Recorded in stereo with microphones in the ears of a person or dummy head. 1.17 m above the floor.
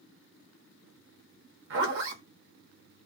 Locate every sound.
1.7 s a zipper: 65° right (ahead or behind), 0.9 m